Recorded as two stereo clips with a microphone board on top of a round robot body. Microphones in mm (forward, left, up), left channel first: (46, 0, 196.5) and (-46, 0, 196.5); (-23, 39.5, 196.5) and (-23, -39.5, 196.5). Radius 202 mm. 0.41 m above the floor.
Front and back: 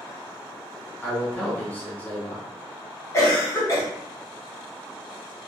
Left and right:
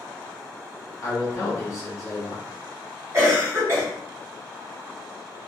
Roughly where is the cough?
Ahead right.